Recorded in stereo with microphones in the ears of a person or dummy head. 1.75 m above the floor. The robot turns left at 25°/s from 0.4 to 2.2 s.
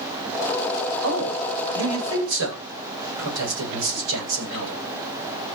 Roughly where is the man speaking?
Right.